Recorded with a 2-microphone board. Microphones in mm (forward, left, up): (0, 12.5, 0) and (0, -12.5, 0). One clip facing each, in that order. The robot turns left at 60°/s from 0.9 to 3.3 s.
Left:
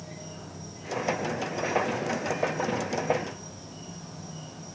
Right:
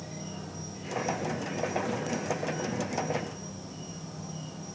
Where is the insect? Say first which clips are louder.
Right 2 dB; 40° right, 6 m; by 4.8 s 175° left, 6 m.